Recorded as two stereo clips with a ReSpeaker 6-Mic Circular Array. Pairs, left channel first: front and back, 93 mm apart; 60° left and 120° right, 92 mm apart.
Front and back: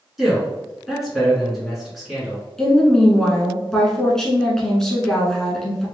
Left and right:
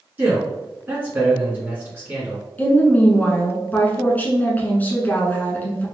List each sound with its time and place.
0.2 s a man speaking: 95° right, 1.8 m
2.6 s a woman speaking: 75° left, 1.2 m